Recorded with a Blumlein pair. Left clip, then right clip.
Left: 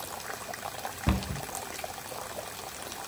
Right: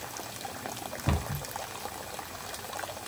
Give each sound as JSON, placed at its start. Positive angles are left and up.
{"t": 1.1, "sound": "a cupboard door", "azimuth_deg": 10, "distance_m": 1.0}